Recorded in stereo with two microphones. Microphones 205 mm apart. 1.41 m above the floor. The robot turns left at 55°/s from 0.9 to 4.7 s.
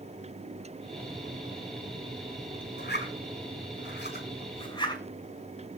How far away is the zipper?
About 6 m.